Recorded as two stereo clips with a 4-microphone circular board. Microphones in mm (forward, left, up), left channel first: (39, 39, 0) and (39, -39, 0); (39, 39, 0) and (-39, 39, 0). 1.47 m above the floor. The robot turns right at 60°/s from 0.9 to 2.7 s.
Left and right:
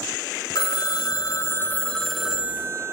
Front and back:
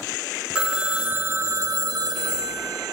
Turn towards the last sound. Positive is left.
turn(degrees=-145)